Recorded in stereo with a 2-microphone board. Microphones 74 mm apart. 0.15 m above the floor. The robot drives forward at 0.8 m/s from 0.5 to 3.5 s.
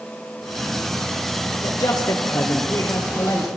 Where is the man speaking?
60° left (ahead or behind), 4 m; by 3.5 s 50° left (ahead or behind), 4.5 m.